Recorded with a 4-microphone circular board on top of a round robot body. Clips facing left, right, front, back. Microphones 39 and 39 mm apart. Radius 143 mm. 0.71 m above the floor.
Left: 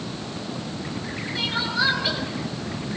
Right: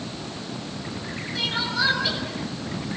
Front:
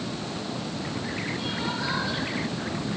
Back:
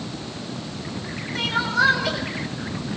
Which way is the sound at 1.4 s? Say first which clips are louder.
Left 1 dB, back 8 dB; 170° left.